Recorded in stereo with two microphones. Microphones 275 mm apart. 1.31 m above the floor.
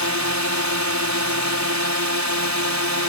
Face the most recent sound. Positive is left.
turn(degrees=-75)  # may be behind; listen again after turning